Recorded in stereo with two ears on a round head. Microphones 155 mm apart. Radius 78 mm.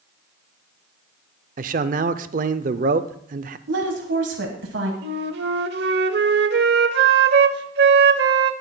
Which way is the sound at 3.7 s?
75° right (ahead or behind).